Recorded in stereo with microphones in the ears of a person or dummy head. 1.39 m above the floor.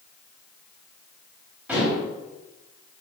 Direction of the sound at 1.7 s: 5° right (ahead or behind).